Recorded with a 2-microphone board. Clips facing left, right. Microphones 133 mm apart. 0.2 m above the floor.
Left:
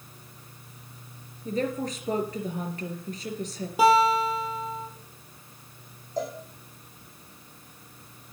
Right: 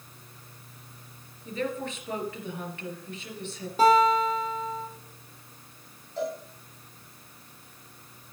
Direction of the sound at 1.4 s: 35° left (ahead or behind).